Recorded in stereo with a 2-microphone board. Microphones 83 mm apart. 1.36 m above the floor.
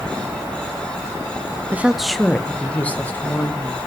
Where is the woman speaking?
20° right (ahead or behind), 0.5 m; by 3.8 s 20° left (ahead or behind), 2.5 m.